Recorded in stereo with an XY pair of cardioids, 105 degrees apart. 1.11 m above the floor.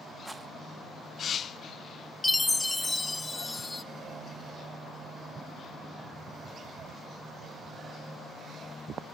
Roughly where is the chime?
Ahead.